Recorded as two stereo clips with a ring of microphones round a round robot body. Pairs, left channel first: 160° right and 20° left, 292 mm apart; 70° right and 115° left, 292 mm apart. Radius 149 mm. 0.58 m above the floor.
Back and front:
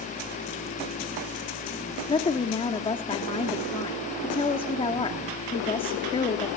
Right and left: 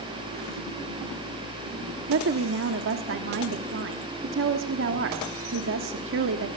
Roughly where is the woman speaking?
Behind left.